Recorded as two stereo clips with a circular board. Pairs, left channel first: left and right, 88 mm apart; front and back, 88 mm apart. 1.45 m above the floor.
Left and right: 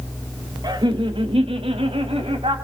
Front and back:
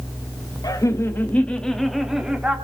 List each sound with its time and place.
0.6 s laughter: 50° right, 2 m; by 2.5 s 100° right, 3.5 m